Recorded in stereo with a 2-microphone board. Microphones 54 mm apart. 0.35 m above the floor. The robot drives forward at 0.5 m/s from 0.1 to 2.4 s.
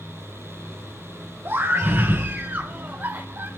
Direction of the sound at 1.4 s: 45° right (ahead or behind).